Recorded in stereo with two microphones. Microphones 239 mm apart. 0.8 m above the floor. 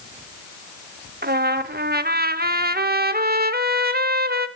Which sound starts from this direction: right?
A trumpet, at 1.2 s.